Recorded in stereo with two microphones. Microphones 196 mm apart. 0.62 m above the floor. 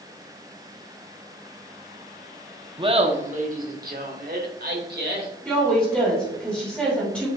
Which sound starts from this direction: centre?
A woman speaking, at 5.5 s.